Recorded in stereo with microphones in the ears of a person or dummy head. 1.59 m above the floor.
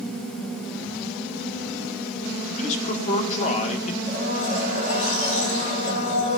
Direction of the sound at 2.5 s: 40° left (ahead or behind).